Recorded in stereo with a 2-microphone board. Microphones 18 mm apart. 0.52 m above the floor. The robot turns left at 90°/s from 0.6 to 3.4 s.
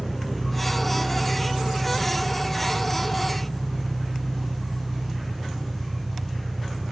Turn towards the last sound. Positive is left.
turn(degrees=-140)